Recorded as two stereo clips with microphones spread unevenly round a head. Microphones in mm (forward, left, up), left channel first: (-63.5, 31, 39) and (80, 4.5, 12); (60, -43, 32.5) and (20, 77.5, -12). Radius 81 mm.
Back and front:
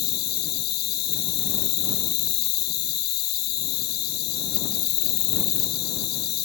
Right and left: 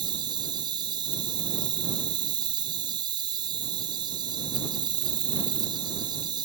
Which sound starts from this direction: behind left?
An insect, at 0.0 s.